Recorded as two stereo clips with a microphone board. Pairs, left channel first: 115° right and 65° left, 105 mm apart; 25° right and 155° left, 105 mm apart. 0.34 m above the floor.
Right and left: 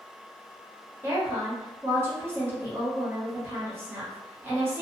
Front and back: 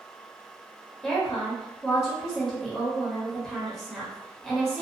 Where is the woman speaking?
60° left, 1.0 m.